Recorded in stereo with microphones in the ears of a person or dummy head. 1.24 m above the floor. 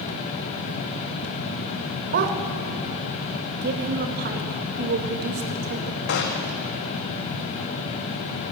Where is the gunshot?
60° left (ahead or behind), 1.7 m.